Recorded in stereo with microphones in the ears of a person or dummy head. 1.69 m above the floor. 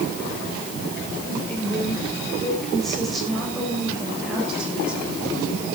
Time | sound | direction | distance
1.3 | a woman speaking | 5° left (ahead or behind) | 7 m